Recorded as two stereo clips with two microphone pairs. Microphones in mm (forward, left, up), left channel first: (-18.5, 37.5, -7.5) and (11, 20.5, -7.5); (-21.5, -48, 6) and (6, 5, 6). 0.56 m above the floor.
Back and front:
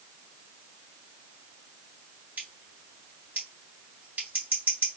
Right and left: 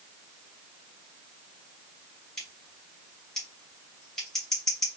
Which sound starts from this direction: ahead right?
Scissors, at 2.4 s.